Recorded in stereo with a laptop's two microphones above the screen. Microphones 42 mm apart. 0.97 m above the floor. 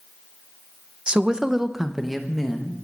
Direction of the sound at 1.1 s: 25° right (ahead or behind).